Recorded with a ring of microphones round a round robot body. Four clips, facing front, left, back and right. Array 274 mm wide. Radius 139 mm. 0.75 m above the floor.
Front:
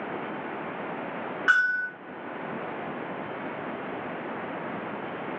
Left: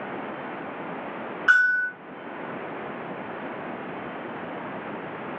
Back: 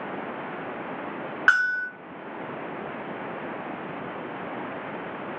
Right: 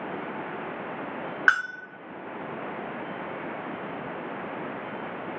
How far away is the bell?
About 1.4 m.